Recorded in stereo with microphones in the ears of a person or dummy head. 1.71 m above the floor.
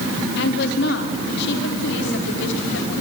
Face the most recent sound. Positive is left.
turn(degrees=65)  # may be behind; listen again after turning